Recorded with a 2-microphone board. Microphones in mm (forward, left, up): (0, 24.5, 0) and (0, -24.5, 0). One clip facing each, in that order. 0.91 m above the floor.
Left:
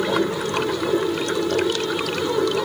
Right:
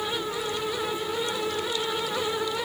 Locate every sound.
0.0 s running water: 80° left